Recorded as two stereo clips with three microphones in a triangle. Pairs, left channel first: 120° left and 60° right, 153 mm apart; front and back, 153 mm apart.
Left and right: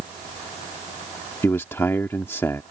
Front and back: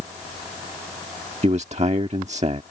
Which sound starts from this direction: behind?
A man speaking, at 1.4 s.